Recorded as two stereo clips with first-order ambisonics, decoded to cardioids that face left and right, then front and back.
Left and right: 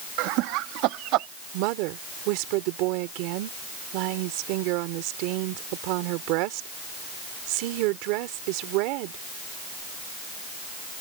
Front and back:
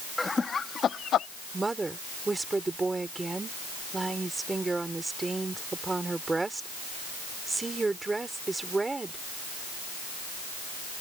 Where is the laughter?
85° right; by 1.3 s 55° right.